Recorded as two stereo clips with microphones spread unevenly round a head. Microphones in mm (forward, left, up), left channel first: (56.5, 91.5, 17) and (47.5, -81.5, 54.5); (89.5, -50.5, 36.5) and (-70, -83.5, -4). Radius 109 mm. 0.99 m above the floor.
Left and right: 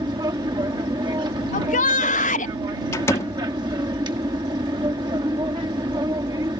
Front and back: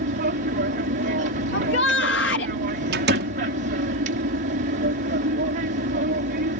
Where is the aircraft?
165° right.